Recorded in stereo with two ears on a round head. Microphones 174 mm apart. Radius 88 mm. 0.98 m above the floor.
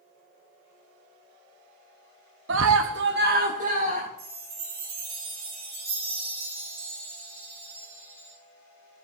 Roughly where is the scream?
Right.